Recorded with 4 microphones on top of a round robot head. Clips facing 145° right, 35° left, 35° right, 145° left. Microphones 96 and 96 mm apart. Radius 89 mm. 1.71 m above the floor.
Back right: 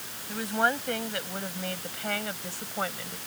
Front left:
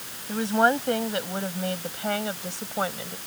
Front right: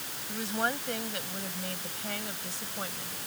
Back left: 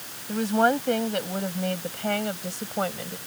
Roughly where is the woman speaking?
Left.